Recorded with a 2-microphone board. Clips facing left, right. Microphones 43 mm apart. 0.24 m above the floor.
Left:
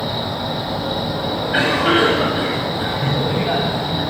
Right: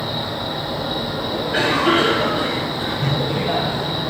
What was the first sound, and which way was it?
An insect, 45° left (ahead or behind).